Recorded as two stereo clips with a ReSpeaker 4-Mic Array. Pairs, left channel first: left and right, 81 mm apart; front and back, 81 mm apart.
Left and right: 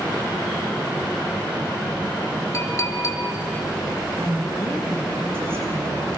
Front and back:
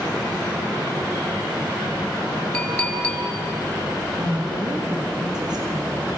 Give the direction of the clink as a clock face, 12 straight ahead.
10 o'clock.